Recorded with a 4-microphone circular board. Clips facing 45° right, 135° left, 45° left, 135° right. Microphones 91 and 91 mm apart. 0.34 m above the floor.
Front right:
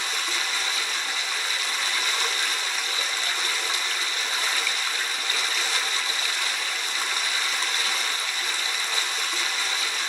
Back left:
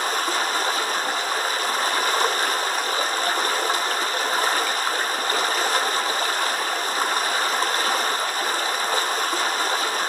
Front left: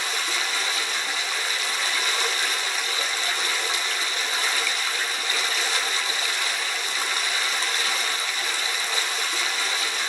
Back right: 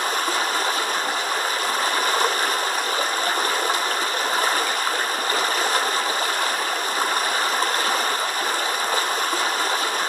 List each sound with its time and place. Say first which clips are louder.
0.0 s running water: back left 7 dB, back right 6 dB; straight behind, 0.7 m